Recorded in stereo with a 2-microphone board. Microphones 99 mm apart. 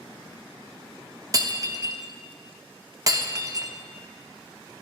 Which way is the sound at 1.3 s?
35° right (ahead or behind).